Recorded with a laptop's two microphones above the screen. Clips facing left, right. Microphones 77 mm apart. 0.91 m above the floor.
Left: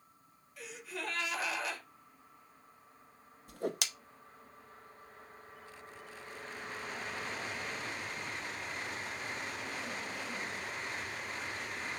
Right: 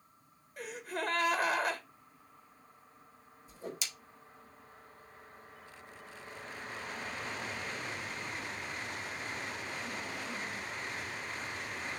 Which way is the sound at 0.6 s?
45° right (ahead or behind).